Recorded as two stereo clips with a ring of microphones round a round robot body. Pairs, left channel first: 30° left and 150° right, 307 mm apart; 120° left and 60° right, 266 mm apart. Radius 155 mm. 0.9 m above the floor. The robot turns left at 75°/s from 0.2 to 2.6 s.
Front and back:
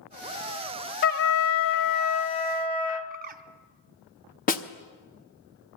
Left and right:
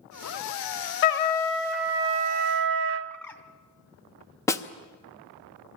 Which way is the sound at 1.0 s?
90° left.